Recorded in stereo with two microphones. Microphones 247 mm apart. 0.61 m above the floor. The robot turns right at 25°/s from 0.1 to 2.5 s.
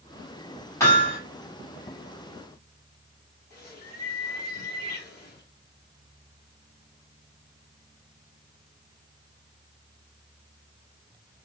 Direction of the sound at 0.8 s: 10° left (ahead or behind).